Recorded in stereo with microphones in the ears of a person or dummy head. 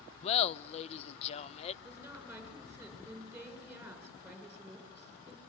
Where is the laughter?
35° left (ahead or behind), 0.6 m.